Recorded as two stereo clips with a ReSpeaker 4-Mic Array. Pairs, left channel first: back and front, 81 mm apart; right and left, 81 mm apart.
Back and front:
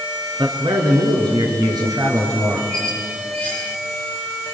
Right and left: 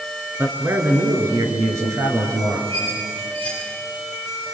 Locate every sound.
0.4 s a man speaking: 25° left, 4.5 m; by 2.6 s 40° left, 5 m
2.7 s a squeak: 105° left, 9 m